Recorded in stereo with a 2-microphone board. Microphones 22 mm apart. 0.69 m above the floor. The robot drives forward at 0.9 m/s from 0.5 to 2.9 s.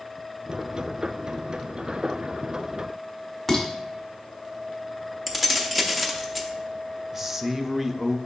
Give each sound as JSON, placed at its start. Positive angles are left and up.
{"t": 3.5, "sound": "dishes clattering", "side_deg": 10, "distance_m": 1.3}
{"t": 5.3, "sound": "keys jangling", "side_deg": -5, "distance_m": 0.7}
{"t": 7.1, "sound": "a man speaking", "side_deg": -20, "distance_m": 0.5}